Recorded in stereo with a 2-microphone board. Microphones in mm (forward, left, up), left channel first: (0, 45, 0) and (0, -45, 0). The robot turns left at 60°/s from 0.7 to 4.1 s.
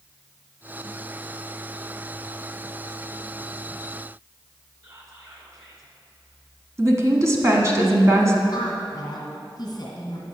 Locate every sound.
4.8 s whispering: 40° right (ahead or behind), 2 m
6.8 s a woman speaking: 35° right (ahead or behind), 1.2 m
8.5 s a woman speaking: 45° left (ahead or behind), 2.0 m